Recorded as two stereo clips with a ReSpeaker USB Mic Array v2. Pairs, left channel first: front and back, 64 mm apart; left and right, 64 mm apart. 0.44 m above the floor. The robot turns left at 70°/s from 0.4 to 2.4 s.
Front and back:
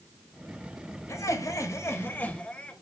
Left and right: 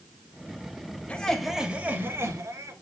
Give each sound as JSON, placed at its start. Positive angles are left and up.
{"t": 1.1, "sound": "laughter", "azimuth_deg": 25, "distance_m": 2.0}